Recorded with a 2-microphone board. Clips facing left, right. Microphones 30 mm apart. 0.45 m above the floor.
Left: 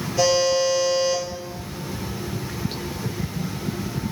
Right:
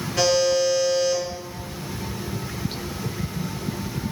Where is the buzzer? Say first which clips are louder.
Even; 85° right, 1.9 m.